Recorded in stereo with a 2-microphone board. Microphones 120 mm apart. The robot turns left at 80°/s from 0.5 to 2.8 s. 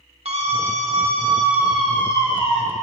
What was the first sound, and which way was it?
A scream, 80° right.